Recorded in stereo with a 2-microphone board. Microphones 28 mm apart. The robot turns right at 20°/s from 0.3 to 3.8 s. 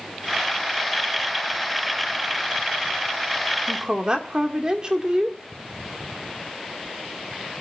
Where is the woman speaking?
35° right (ahead or behind), 2 m.